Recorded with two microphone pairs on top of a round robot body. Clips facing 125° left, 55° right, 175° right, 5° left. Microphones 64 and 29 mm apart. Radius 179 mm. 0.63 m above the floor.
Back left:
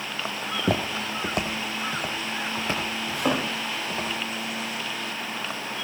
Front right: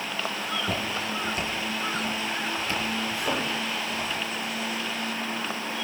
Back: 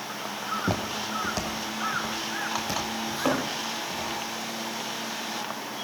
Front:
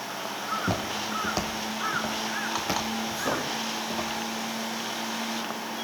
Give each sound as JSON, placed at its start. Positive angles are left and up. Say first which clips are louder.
{"t": 0.4, "sound": "footsteps", "louder": "back left 7 dB, even", "azimuth_deg": 125, "distance_m": 0.7}
{"t": 3.1, "sound": "a thud", "louder": "back left 3 dB, back 5 dB", "azimuth_deg": 145, "distance_m": 8.0}